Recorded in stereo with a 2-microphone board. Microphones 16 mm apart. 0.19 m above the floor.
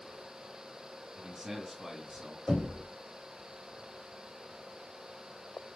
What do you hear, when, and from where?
1.2 s a man speaking: 25° right (ahead or behind), 1.8 m
2.5 s knocking: 50° right (ahead or behind), 3.5 m